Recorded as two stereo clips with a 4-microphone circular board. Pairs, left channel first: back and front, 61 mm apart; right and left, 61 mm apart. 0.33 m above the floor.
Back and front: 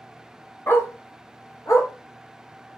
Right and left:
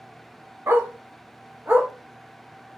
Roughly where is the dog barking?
Behind left.